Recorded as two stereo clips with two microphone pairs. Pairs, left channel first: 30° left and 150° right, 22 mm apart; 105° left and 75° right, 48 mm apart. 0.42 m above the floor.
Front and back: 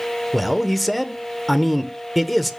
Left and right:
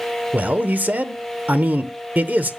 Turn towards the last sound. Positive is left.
turn(degrees=-65)